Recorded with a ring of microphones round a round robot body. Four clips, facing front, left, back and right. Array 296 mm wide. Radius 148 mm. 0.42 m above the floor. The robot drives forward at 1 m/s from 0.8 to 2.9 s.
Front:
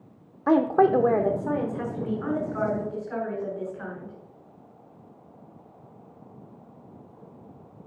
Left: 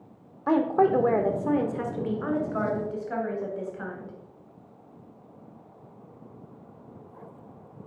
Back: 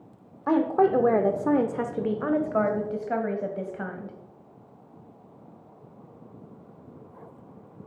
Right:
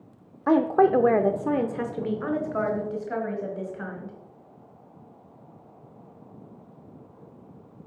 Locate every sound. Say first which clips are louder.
0.5 s a woman speaking: right 2 dB, front 2 dB; 45° right, 0.8 m; by 4.2 s 175° right, 2 m